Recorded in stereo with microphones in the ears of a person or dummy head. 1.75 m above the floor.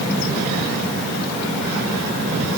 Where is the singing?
I don't hear singing.